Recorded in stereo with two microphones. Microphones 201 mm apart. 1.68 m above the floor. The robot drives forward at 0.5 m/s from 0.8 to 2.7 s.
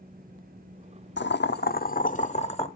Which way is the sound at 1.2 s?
65° left (ahead or behind).